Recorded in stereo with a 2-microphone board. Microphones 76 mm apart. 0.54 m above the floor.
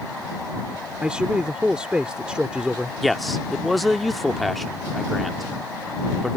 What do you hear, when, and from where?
1.0 s a man speaking: 15° right (ahead or behind)
3.0 s a man speaking: centre (ahead or behind)